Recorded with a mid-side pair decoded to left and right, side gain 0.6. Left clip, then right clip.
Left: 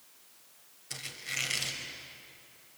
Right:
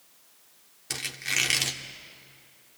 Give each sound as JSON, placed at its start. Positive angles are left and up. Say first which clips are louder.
{"t": 0.9, "sound": "a squeak", "louder": "right 8 dB", "azimuth_deg": -65, "distance_m": 2.5}